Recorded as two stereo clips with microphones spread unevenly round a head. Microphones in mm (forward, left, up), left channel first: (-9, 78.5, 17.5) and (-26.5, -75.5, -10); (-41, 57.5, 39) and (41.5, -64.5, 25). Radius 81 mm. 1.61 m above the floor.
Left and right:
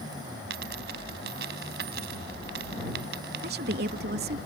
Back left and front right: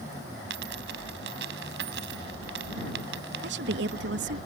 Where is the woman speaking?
60° right.